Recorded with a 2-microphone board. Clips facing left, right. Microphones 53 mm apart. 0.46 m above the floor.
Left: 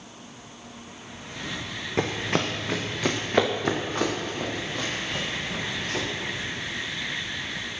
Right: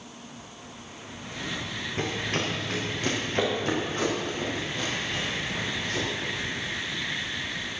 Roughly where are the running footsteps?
Left.